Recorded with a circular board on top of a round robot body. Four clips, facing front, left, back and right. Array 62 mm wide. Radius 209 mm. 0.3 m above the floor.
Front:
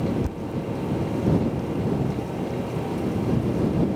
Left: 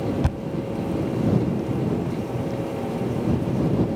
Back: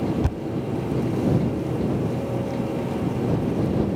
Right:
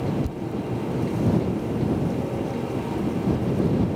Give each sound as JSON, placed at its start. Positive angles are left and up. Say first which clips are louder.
{"t": 0.2, "sound": "a thud", "louder": "left 2 dB, back 2 dB", "azimuth_deg": 110}